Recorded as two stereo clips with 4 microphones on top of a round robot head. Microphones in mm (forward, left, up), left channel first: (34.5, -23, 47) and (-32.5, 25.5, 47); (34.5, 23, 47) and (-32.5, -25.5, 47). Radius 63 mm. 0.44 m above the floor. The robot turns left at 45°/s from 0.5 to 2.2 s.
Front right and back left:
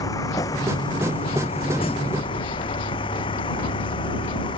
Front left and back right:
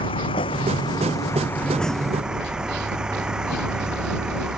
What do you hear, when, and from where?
0.0 s a vehicle: 15° left; by 4.6 s 65° right